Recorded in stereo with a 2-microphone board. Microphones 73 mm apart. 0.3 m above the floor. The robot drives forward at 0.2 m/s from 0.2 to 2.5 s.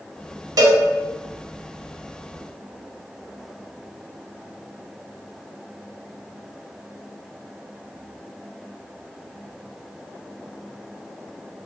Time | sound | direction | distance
0.6 | a cowbell | 60° right (ahead or behind) | 0.7 m